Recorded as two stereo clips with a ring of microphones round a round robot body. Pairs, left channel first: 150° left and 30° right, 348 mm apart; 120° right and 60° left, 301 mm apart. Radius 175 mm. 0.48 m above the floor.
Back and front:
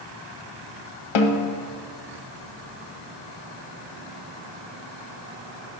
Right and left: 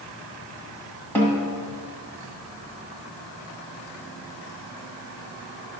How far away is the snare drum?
About 1.1 m.